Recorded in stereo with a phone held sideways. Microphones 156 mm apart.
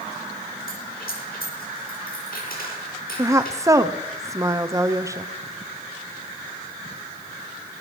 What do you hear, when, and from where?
0.7 s a dropped coin: 70° left (ahead or behind), 8.5 m
3.2 s a woman speaking: 20° right (ahead or behind), 0.7 m